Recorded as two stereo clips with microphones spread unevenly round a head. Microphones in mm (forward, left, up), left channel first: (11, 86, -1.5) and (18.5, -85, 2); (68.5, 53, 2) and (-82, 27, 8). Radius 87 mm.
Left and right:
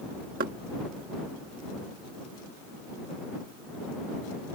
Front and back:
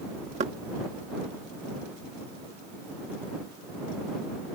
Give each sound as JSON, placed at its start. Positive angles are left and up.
{"t": 0.4, "sound": "knocking", "azimuth_deg": -125}